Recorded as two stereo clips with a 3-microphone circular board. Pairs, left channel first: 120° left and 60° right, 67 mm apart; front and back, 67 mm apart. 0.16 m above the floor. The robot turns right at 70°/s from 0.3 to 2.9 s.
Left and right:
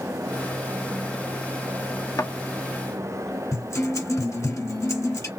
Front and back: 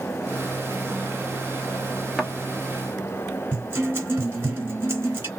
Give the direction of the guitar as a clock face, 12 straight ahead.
8 o'clock.